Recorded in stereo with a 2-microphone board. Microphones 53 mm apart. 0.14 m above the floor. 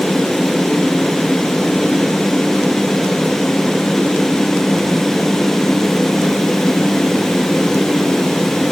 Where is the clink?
No clink in this recording.